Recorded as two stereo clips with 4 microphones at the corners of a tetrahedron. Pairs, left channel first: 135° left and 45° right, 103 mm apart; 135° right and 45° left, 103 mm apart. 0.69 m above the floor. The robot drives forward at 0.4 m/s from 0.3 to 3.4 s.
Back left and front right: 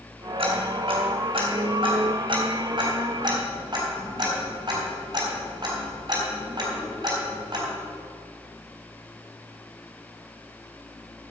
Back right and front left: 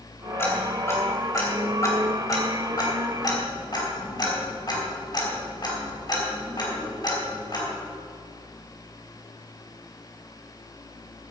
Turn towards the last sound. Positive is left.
turn(degrees=-90)